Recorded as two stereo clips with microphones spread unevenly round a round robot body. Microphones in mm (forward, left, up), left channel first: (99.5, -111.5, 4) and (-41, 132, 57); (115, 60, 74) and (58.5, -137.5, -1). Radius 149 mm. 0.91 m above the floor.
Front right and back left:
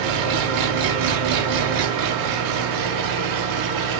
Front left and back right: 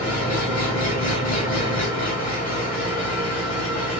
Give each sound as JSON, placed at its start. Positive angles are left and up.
{"t": 0.0, "sound": "an engine running", "azimuth_deg": 130, "distance_m": 0.8}